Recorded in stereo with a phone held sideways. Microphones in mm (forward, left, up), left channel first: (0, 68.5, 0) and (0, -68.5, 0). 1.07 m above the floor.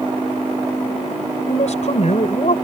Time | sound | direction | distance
1.5 | a man speaking | 55° left (ahead or behind) | ?